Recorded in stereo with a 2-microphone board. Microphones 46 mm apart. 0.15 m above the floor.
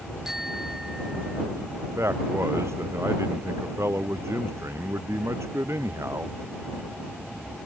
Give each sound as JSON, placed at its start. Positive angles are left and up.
{"t": 0.2, "sound": "a bicycle bell", "side_deg": -5}
{"t": 1.9, "sound": "a man speaking", "side_deg": -75}